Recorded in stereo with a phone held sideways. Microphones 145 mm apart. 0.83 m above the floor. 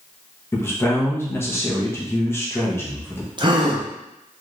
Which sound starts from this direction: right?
A gasp, at 3.4 s.